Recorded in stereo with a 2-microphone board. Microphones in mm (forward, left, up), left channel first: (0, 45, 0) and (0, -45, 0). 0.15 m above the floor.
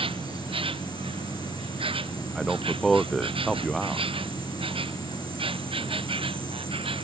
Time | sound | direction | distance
0.0 | an insect | 80° right | ?
2.4 | a man speaking | centre (ahead or behind) | ?